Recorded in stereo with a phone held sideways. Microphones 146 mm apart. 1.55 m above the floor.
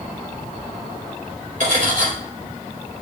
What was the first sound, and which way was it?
Cutlery clinking, 60° right (ahead or behind).